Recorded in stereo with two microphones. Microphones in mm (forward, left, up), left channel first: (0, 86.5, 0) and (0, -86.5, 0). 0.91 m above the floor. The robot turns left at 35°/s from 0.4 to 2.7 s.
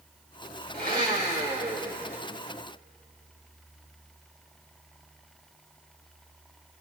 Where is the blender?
120° right, 2.5 m; by 2.2 s 170° right, 2.5 m.